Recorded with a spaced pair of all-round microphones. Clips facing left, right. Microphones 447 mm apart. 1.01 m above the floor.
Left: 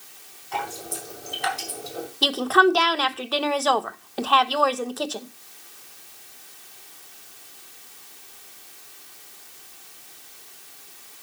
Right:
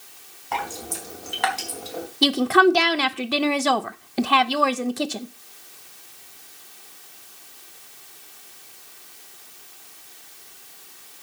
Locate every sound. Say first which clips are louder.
0.5 s dripping: right 1 dB; 80° right, 4 m
2.2 s a woman speaking: right 3 dB; 40° right (ahead or behind), 0.9 m